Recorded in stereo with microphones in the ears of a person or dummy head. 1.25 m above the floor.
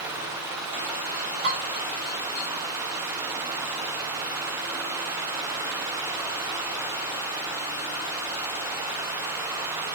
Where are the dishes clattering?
50° right (ahead or behind), 2.0 m.